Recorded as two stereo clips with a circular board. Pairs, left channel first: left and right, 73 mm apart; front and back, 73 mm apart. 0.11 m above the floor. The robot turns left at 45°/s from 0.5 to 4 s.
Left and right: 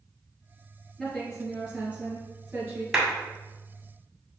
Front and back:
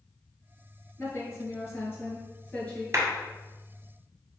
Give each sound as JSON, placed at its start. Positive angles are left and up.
{"t": 1.0, "sound": "a woman speaking", "azimuth_deg": 25, "distance_m": 2.0}
{"t": 2.9, "sound": "a clap", "azimuth_deg": -165, "distance_m": 1.5}